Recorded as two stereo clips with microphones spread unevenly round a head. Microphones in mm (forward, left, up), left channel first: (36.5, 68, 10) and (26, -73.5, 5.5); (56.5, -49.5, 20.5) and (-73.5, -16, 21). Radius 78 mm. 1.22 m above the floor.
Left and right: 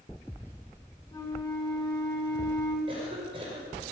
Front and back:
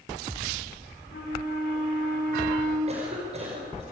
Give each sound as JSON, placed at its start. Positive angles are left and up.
{"t": 1.1, "sound": "a flute", "azimuth_deg": 15, "distance_m": 6.0}
{"t": 2.9, "sound": "a cough", "azimuth_deg": -155, "distance_m": 5.5}